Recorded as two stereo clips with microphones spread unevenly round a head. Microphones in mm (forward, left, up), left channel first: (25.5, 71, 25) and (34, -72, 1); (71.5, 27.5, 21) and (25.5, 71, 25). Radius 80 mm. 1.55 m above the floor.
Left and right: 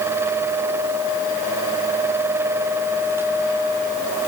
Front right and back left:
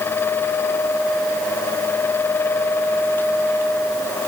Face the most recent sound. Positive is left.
No sound to turn to.